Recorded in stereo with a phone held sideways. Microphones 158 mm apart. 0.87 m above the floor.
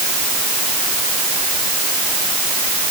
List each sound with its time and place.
Only background noise.